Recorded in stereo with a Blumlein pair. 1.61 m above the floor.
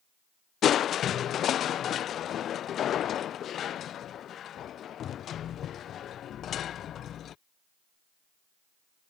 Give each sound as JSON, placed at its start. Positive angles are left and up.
{"t": 0.6, "sound": "crushing", "azimuth_deg": 30}